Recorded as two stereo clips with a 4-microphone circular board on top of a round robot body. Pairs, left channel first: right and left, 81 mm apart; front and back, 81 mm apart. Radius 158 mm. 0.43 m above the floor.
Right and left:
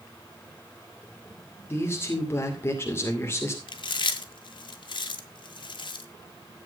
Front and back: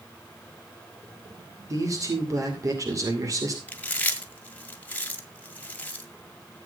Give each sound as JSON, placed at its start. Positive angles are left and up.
{"t": 1.7, "sound": "a man speaking", "azimuth_deg": -145, "distance_m": 2.5}
{"t": 3.7, "sound": "chewing", "azimuth_deg": -70, "distance_m": 1.6}